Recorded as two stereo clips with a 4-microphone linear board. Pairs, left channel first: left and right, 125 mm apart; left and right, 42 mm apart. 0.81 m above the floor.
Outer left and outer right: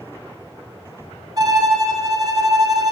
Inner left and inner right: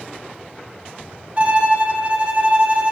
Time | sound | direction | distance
1.4 | a violin | 30° right (ahead or behind) | 1.0 m